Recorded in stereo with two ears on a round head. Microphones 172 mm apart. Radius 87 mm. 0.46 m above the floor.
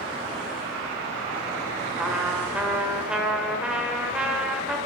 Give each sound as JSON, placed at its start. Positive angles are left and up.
{"t": 2.0, "sound": "a trumpet", "side_deg": -5, "distance_m": 1.0}